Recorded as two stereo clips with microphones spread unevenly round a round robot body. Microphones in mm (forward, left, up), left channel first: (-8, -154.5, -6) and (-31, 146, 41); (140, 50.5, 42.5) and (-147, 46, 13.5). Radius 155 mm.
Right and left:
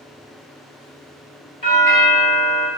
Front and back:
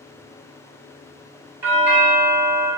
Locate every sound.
1.6 s a doorbell: 115° right, 1.7 m